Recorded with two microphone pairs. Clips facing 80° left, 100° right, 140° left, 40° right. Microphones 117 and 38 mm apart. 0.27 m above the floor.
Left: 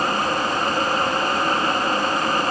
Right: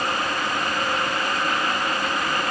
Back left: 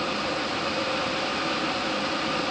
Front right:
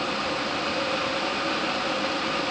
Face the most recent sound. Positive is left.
No sound to turn to.